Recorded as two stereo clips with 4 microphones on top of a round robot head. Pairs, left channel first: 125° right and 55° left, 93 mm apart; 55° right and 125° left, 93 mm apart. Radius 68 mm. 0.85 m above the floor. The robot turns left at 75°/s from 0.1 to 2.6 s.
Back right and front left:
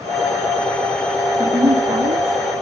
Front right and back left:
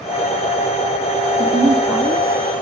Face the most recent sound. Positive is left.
turn(degrees=15)